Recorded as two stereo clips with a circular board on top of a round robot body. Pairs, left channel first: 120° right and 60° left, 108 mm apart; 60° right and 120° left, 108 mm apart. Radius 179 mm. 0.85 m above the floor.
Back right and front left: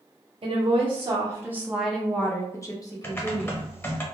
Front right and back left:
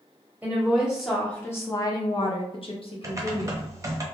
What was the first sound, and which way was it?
A woman speaking, 50° left.